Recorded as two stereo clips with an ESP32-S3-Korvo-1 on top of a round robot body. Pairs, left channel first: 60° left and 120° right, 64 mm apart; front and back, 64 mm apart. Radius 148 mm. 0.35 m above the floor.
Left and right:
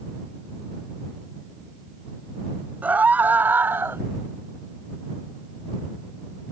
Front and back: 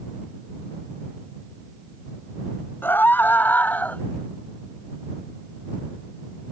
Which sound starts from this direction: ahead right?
A scream, at 2.8 s.